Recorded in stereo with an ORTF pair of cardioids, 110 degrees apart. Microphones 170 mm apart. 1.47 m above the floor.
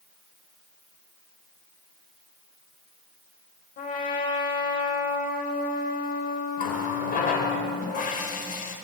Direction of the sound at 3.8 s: 55° left.